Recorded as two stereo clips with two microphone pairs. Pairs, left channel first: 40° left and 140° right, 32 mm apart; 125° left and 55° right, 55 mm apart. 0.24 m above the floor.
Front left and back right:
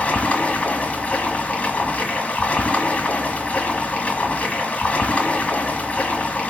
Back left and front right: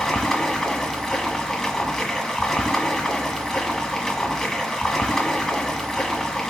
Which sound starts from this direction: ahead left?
Running water, at 0.0 s.